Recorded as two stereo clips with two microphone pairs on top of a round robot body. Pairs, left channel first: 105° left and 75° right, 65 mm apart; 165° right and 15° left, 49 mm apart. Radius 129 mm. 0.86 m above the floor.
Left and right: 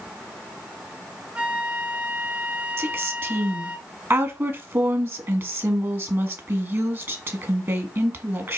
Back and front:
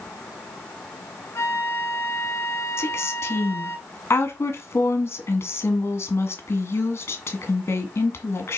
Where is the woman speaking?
125° right, 2 m.